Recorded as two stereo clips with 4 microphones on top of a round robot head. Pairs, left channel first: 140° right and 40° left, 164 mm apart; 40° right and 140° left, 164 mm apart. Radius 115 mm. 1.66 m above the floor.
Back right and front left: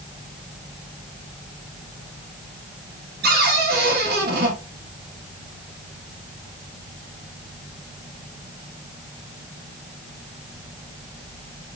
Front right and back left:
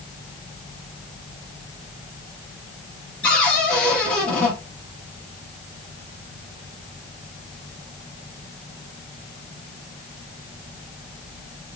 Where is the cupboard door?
40° left, 1.2 m.